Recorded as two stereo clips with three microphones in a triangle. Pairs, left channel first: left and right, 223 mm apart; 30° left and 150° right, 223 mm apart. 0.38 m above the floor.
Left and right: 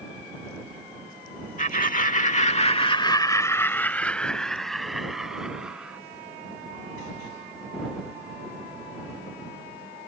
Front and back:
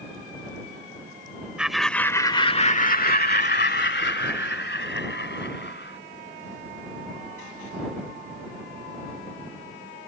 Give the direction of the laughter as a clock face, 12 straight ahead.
8 o'clock.